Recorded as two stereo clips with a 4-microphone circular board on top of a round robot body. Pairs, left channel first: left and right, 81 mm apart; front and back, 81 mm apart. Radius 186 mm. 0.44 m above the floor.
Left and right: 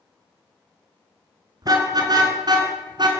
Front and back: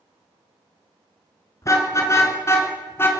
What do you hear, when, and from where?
1.6 s a car horn: 50° right, 4.5 m; by 3.1 s 60° right, 3.5 m